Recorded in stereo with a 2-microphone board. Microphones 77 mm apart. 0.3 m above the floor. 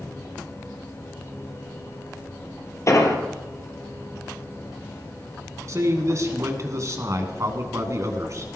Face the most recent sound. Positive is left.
turn(degrees=-40)  # may be behind; listen again after turning